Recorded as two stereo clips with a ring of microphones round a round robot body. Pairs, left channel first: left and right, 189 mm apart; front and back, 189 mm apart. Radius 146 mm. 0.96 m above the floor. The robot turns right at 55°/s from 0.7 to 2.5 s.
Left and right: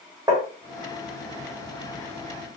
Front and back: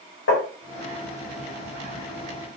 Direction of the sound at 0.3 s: 20° right.